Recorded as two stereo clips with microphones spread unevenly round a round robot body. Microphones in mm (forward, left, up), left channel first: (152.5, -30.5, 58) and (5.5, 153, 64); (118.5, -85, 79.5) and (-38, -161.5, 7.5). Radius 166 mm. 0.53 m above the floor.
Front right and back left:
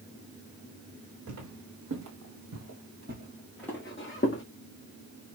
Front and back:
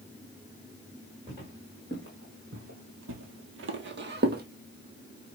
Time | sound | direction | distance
1.3 | footsteps | 125° left | 1.7 m